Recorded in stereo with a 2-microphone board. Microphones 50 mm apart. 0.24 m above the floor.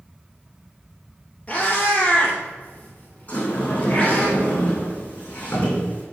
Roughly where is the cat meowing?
Left.